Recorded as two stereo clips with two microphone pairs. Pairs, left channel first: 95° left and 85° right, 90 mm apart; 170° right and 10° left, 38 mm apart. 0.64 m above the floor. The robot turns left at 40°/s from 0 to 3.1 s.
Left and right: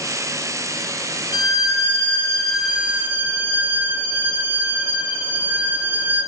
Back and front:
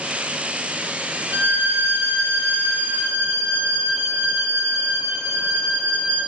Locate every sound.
1.3 s a violin: 55° left, 1.4 m; by 6.3 s 15° right, 1.4 m